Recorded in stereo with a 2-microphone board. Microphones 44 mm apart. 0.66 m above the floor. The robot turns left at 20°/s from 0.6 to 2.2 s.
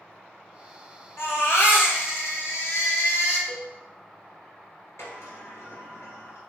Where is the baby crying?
70° left (ahead or behind), 1.3 m; by 3.4 s 80° left, 1.3 m.